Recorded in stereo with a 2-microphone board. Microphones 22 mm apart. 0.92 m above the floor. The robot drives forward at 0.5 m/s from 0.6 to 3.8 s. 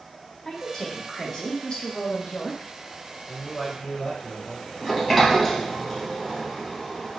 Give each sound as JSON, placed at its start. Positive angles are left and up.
{"t": 0.5, "sound": "a woman speaking", "side_deg": 25, "distance_m": 1.3}
{"t": 3.3, "sound": "a man speaking", "side_deg": 45, "distance_m": 1.7}
{"t": 4.8, "sound": "a sliding door", "side_deg": 15, "distance_m": 0.8}